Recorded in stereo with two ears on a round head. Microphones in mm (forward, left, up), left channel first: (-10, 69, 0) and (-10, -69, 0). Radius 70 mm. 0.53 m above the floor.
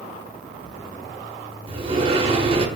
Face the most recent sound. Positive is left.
turn(degrees=-35)  # may be behind; listen again after turning